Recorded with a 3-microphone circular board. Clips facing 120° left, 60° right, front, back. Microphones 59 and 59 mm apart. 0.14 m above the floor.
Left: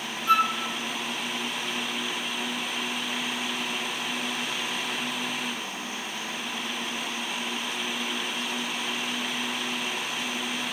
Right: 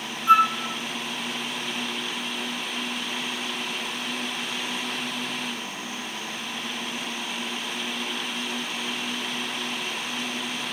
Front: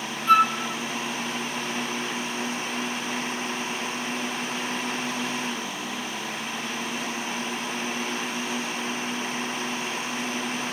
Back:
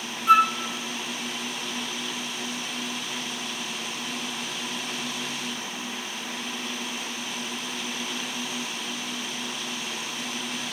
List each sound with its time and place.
0.3 s a flute: 115° right, 0.7 m